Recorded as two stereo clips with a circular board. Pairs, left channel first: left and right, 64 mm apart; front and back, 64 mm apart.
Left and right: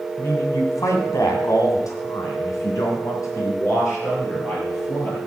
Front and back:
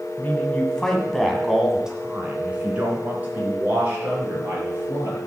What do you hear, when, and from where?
0.2 s a man speaking: 55° left, 2 m; by 5.2 s 130° left, 6 m